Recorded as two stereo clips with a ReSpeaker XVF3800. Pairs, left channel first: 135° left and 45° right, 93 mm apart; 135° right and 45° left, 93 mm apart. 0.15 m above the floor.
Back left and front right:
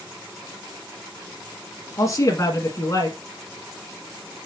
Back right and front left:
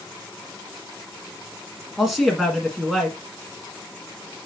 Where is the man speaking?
135° left, 1.6 m.